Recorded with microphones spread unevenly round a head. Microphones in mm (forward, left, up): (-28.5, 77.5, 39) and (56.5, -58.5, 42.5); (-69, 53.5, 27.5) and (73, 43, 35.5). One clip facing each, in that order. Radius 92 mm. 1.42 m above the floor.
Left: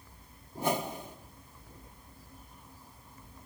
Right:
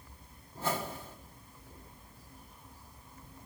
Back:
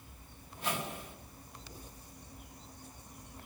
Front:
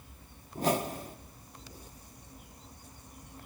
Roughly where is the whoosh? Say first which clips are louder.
Left 4 dB, front 8 dB; ahead left.